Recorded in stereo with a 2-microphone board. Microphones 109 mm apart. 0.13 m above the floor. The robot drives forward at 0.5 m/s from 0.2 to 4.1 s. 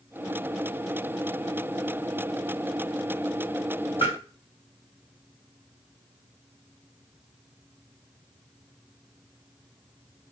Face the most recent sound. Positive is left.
turn(degrees=55)  # may be behind; listen again after turning